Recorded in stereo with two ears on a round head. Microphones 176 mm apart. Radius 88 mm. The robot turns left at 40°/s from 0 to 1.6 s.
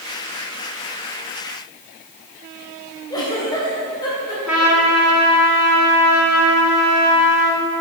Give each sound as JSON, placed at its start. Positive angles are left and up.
{"t": 3.1, "sound": "a giggle", "side_deg": 20, "distance_m": 3.0}
{"t": 4.5, "sound": "a trumpet", "side_deg": -5, "distance_m": 2.5}